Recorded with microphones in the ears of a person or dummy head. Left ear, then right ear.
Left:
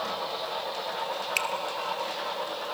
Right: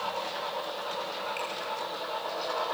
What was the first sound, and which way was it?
A finger snap, 55° left (ahead or behind).